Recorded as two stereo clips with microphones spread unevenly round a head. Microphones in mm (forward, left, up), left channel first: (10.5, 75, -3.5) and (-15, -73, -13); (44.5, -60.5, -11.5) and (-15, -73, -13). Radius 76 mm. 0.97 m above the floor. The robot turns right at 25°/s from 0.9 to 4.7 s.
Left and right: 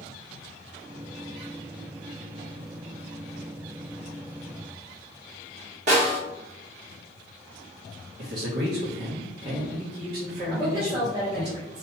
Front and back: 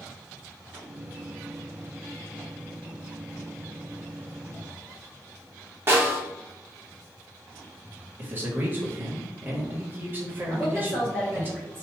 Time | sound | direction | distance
5.9 | a snare drum | 125° right | 1.3 m
8.2 | a man speaking | 115° right | 1.4 m
10.5 | a woman speaking | 55° right | 0.9 m